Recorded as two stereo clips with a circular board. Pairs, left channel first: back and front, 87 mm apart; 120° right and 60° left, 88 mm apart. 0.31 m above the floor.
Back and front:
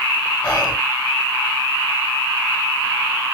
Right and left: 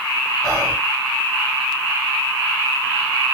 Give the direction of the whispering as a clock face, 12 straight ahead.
9 o'clock.